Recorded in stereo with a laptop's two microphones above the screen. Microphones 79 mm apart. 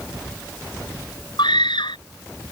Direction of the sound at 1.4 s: 80° left.